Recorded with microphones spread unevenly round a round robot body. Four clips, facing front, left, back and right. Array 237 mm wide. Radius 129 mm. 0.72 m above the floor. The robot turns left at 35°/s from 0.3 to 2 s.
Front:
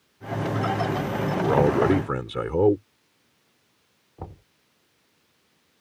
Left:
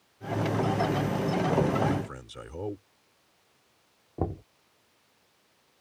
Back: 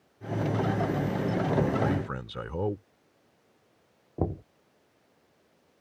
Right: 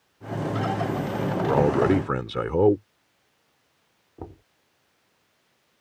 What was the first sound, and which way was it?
A man speaking, 30° right.